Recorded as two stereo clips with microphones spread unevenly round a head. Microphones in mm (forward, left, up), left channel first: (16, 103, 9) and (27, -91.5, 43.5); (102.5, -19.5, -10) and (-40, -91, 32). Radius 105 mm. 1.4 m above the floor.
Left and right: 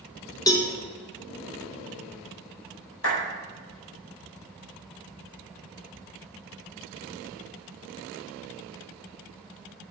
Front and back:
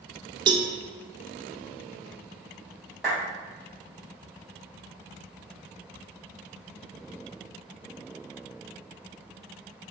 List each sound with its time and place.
0.5 s a cowbell: 170° left, 0.8 m
3.0 s a clap: 120° left, 5 m